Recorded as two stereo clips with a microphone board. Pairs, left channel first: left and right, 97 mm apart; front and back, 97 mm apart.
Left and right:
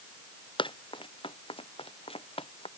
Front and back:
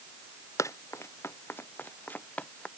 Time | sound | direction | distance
0.6 | running footsteps | 60° left | ?